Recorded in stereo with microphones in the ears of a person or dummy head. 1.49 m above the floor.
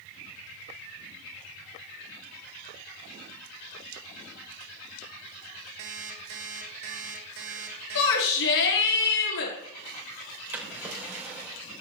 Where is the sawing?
No sawing in this recording.